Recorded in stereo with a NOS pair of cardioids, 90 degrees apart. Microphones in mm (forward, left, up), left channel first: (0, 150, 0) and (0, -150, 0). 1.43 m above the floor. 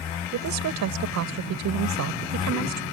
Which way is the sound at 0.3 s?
70° right.